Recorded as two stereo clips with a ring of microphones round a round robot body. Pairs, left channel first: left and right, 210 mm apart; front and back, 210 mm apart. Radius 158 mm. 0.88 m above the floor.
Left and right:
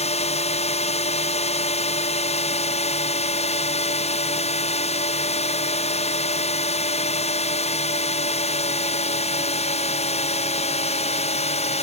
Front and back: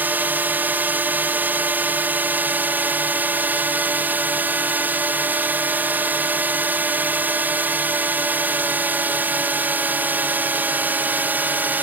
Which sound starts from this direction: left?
A drone, at 0.0 s.